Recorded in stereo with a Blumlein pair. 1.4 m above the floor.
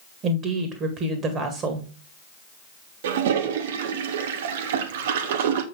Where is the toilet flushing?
55° right, 1.1 m.